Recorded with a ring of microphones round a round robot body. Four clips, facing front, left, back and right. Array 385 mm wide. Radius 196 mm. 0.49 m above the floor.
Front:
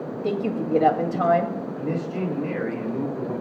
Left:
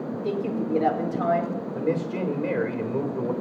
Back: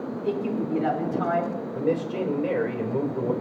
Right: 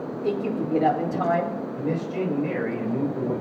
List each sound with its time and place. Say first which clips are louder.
0.2 s a woman speaking: right 2 dB, front 2 dB; 5° right, 2.5 m
1.8 s a man speaking: left 2 dB, back 4 dB; 135° left, 2.5 m